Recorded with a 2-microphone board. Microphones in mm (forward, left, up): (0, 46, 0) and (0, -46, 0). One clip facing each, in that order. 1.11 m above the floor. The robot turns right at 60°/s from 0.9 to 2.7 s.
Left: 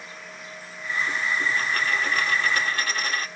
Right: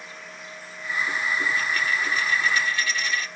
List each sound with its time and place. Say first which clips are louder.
1.6 s a dropped coin: even; 50° left, 1.3 m; by 3.3 s 120° left, 1.3 m